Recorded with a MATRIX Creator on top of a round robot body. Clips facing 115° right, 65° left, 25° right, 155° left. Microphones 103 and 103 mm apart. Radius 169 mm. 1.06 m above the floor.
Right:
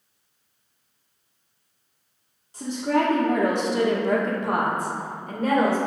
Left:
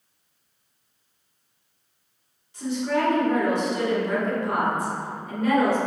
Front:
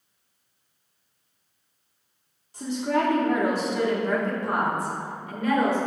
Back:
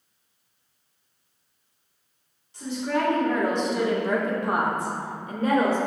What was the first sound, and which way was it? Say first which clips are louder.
A woman speaking: right 2 dB, front 2 dB; 60° right.